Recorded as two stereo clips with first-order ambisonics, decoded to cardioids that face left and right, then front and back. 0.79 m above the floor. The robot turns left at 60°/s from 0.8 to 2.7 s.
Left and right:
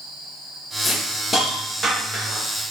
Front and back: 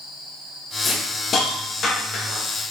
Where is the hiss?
60° left, 1.1 m; by 2.4 s 35° right, 1.1 m.